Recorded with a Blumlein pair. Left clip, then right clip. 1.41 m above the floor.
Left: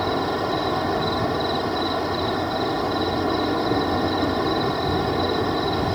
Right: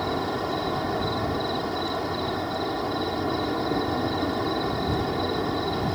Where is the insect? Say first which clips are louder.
Left 4 dB; 15° left.